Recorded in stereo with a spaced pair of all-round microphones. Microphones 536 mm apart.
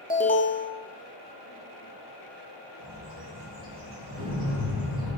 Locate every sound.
0.1 s an alarm: 15° left (ahead or behind), 1.0 m
2.8 s a bird: 45° right (ahead or behind), 2 m
4.1 s an explosion: 25° right (ahead or behind), 1.5 m